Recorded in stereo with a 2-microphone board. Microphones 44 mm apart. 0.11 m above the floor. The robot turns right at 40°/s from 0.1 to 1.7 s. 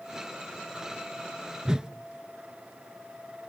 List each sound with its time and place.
1.6 s a whoosh: 15° right (ahead or behind), 0.6 m